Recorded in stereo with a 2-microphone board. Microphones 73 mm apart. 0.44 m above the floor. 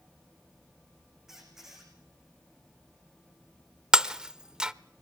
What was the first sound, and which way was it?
A squeak, 5° right (ahead or behind).